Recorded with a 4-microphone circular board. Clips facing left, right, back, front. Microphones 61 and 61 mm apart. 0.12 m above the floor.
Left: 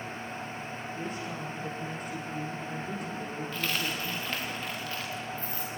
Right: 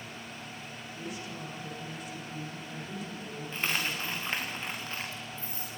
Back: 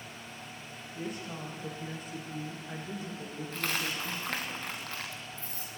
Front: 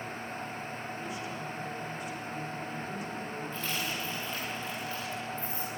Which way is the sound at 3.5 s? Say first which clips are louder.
Right 1 dB, back 4 dB; 150° right.